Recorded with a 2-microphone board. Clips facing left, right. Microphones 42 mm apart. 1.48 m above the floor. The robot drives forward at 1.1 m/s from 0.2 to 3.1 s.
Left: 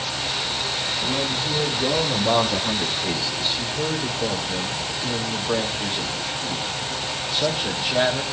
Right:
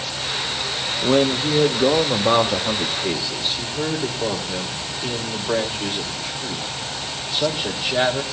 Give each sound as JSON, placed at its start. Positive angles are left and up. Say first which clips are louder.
{"t": 1.0, "sound": "a man speaking", "louder": "right 10 dB", "side_deg": -70, "distance_m": 1.3}